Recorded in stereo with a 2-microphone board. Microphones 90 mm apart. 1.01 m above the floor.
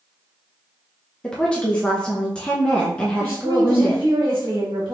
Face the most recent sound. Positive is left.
turn(degrees=-80)